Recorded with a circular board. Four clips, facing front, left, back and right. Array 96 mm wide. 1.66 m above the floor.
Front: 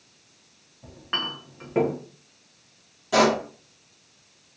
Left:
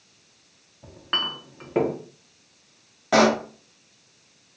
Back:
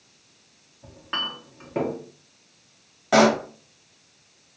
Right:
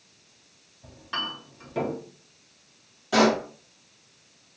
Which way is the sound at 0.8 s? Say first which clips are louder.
Left 3 dB, even; 80° left.